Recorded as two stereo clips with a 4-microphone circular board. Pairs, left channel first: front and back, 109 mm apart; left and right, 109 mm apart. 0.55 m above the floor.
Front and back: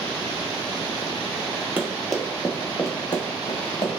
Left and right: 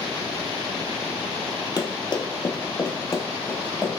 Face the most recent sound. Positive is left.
turn(degrees=15)